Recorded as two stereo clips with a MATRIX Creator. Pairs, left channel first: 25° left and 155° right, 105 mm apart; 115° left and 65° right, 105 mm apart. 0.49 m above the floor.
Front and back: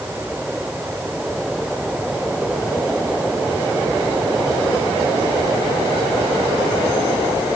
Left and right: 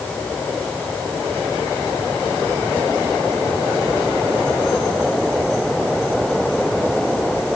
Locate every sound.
Only background noise.